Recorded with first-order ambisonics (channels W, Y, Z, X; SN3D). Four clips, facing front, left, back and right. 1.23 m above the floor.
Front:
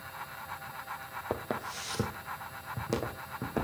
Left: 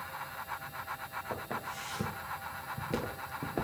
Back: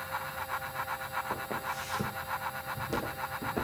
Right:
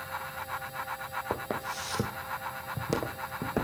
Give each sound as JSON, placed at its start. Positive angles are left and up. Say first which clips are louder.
{"t": 1.3, "sound": "footsteps", "louder": "right 5 dB, back 1 dB", "azimuth_deg": -50, "distance_m": 1.8}